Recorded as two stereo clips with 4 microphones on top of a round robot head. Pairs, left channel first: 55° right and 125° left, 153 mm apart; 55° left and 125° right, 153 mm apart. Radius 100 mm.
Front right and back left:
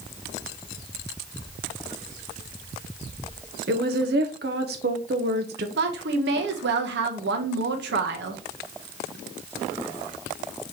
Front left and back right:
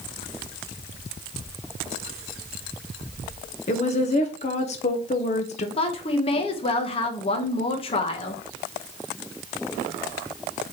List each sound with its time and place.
3.7 s a woman speaking: 100° left, 0.6 m
5.8 s a woman speaking: 110° left, 0.8 m